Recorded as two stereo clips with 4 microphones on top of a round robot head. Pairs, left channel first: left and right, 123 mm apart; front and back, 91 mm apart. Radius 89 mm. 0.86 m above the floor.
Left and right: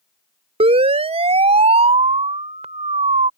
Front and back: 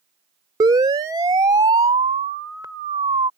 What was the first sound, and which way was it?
A siren, 125° right.